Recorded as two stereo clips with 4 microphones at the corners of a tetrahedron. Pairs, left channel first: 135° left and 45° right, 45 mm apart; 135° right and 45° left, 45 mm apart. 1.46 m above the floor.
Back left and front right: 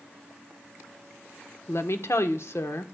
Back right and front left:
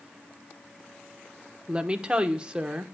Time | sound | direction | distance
1.7 | a woman speaking | 115° left | 0.9 m